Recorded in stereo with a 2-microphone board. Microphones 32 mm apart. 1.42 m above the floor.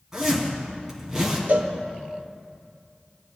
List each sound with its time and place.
0.1 s a zipper: 15° right (ahead or behind), 3.5 m
1.5 s a cowbell: 55° right (ahead or behind), 0.8 m